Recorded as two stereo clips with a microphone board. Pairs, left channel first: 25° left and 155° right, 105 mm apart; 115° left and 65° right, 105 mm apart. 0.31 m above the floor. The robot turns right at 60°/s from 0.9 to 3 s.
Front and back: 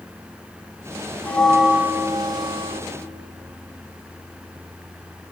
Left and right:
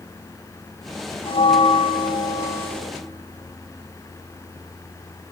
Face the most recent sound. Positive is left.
turn(degrees=-160)